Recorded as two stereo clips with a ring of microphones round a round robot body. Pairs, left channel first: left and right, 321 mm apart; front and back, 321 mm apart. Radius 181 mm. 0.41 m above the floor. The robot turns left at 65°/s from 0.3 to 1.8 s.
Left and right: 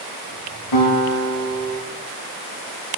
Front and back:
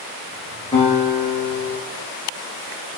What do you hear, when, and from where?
0.7 s a guitar: 75° left, 8 m; by 1.8 s 10° left, 8 m